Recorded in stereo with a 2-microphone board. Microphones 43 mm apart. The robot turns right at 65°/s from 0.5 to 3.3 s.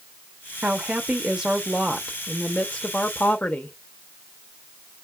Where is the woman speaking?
85° right, 0.7 m; by 3.8 s 90° left, 0.7 m.